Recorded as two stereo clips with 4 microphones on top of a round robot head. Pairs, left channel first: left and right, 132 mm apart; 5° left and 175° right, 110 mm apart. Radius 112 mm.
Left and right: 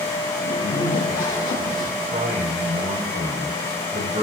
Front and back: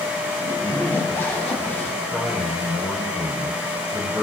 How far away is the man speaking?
About 4.5 m.